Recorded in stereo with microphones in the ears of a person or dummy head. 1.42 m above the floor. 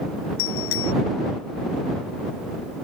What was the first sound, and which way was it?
A bicycle bell, 90° left.